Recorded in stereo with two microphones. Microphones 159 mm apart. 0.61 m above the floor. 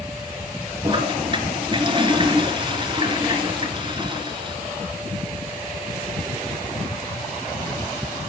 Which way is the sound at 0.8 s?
30° right (ahead or behind).